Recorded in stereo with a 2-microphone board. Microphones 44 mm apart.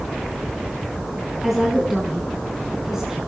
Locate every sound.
1.4 s a woman speaking: 10° right (ahead or behind), 7 m; by 3.2 s 15° right (ahead or behind), 6.5 m